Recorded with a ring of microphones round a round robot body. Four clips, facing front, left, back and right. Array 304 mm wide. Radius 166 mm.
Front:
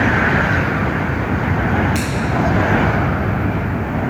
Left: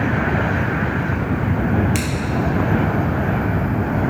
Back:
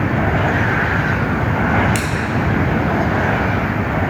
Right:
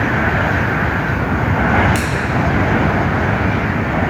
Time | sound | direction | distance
1.9 | scissors | 160° left | 2 m